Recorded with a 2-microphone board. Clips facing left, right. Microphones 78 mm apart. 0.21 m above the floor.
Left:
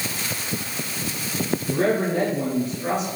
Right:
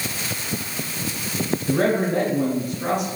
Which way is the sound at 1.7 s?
55° right (ahead or behind).